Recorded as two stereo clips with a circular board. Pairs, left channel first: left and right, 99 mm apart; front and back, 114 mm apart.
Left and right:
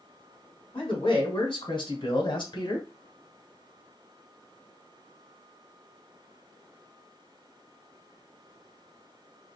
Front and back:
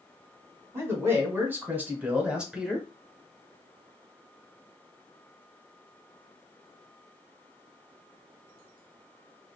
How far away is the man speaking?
About 2.5 m.